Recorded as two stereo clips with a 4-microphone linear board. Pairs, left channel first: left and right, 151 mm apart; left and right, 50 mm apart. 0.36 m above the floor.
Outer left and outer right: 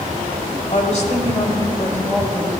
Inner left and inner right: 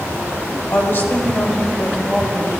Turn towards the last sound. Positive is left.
turn(degrees=0)  # may be behind; listen again after turning